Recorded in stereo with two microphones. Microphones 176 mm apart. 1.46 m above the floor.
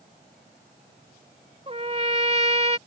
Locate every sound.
1.7 s a trumpet: 35° right (ahead or behind)